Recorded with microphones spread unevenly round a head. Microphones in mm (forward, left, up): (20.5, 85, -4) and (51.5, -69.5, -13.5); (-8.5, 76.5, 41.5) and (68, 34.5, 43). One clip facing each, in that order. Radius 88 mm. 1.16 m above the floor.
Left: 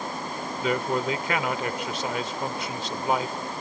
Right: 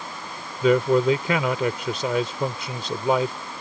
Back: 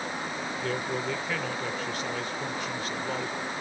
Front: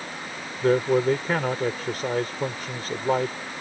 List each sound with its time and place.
0.6 s a man speaking: 95° right